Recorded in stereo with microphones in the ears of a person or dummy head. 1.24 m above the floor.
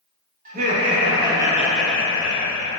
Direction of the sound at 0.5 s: 40° right (ahead or behind).